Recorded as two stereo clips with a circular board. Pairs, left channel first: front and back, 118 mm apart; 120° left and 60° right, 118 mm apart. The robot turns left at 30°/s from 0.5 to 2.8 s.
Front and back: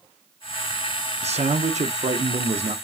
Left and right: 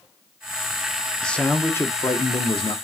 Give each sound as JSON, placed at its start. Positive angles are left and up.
{"t": 1.2, "sound": "a man speaking", "azimuth_deg": -155, "distance_m": 0.7}